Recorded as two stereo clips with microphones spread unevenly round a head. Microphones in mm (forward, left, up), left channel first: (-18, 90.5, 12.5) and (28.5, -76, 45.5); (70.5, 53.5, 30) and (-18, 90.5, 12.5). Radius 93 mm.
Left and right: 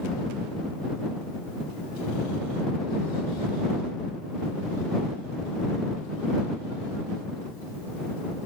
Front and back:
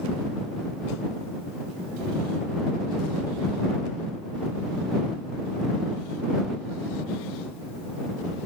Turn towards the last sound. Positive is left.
No sound to turn to.